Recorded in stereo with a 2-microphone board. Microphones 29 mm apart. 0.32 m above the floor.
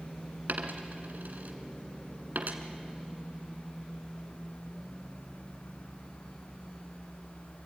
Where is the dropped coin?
75° right (ahead or behind), 1.5 m.